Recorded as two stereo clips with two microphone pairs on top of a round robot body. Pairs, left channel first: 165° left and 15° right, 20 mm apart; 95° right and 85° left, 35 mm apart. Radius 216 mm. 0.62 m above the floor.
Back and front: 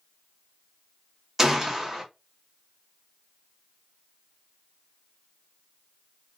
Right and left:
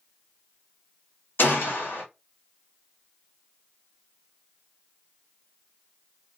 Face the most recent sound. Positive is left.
turn(degrees=-90)